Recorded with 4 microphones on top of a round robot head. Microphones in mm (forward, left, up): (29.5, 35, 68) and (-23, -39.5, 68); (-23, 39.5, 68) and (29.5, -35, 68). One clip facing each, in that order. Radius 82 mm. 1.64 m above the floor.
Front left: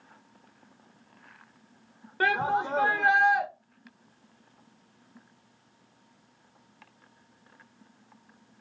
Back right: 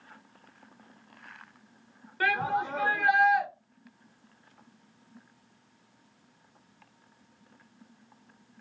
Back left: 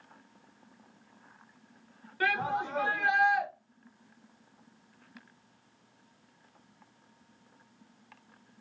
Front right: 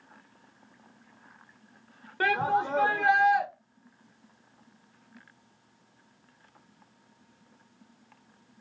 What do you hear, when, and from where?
2.2 s a shout: 10° right, 1.2 m